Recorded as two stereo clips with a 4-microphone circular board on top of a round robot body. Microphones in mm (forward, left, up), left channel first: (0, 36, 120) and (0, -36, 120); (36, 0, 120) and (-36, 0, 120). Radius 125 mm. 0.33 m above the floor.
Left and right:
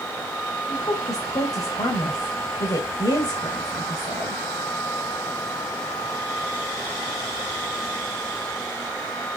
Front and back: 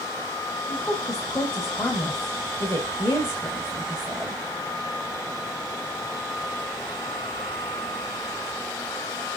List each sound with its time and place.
0.7 s a woman speaking: 70° left, 3 m